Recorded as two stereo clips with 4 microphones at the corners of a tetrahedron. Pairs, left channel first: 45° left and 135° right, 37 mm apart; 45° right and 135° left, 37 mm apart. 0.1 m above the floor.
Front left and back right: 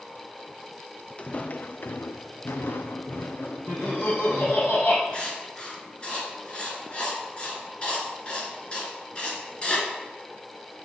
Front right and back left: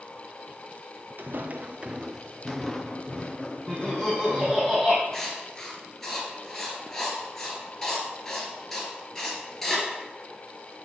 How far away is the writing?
About 1.6 m.